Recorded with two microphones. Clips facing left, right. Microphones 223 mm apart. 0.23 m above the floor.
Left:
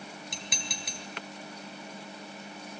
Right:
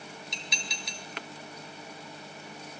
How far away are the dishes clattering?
About 2.5 m.